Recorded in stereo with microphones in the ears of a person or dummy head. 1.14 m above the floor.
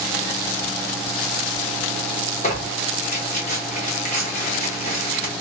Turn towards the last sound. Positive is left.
turn(degrees=30)  # may be behind; listen again after turning